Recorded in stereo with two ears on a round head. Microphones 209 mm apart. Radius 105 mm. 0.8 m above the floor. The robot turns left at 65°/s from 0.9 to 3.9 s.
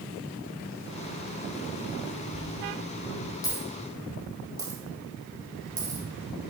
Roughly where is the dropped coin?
Left.